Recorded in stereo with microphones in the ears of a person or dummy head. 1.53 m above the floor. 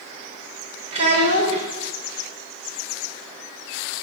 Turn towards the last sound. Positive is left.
turn(degrees=-30)  # may be behind; listen again after turning